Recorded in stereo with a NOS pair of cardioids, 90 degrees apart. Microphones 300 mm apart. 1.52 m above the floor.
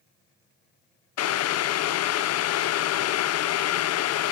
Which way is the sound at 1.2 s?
60° left.